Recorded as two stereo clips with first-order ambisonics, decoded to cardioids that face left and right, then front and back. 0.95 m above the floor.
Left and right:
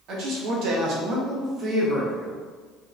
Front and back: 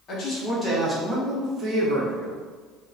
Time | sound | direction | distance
0.1 | a man speaking | 55° right | 0.9 m